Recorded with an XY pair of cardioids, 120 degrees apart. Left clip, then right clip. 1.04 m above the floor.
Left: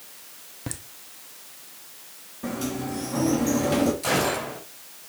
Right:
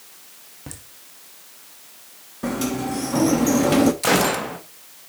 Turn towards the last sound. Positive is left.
turn(degrees=-50)